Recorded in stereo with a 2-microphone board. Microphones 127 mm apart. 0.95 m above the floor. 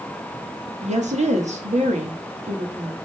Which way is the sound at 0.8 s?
65° right (ahead or behind).